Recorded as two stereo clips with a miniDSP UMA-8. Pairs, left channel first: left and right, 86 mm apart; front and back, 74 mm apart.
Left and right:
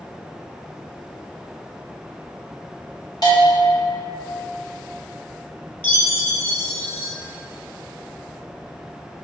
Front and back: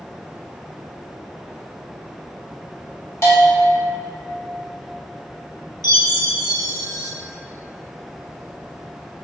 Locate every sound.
3.2 s a bell: 50° left, 1.2 m
5.8 s a chime: 25° left, 1.1 m